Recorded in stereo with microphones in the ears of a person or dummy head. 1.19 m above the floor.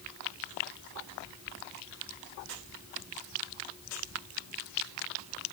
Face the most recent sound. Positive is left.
No sound to turn to.